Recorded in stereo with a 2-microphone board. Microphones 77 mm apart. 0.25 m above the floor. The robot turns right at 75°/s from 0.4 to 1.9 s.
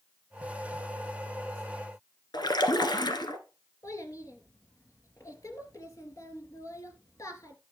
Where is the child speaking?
45° left (ahead or behind), 2.5 m.